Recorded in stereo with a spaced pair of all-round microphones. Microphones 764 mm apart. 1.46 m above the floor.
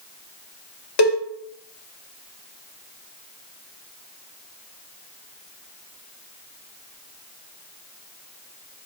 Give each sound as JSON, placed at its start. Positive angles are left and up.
{"t": 1.0, "sound": "a cowbell", "side_deg": 40, "distance_m": 0.6}